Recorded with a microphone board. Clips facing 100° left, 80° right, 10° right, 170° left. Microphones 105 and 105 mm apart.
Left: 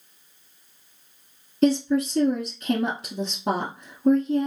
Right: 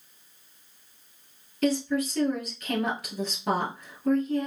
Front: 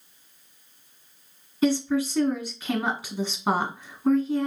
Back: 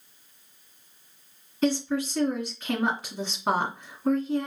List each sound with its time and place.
1.6 s a woman speaking: 65° left, 1.4 m